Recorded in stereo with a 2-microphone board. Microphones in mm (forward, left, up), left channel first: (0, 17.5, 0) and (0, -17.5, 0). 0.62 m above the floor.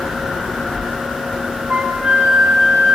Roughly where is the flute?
Right.